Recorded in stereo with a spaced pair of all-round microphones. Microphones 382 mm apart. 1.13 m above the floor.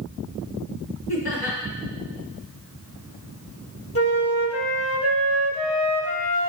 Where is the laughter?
65° left (ahead or behind), 2.5 m.